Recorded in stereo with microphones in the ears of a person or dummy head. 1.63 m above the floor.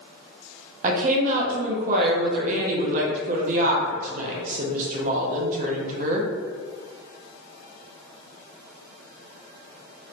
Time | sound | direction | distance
0.8 | a woman speaking | 40° right (ahead or behind) | 0.7 m